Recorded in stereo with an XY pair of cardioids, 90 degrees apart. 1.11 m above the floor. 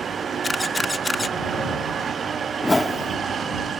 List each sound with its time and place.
0.4 s a camera shutter: 25° left
2.6 s a whoosh: 20° left